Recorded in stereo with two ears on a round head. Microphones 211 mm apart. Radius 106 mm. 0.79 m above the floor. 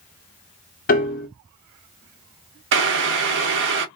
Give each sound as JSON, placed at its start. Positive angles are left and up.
{"t": 0.9, "sound": "a piano", "side_deg": 40, "distance_m": 0.9}
{"t": 2.7, "sound": "boiling", "side_deg": -50, "distance_m": 0.7}